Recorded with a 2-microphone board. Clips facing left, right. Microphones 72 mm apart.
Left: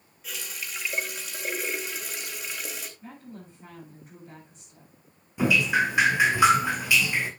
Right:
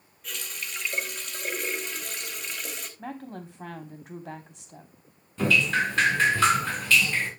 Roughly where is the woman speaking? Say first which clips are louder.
Right 6 dB; right.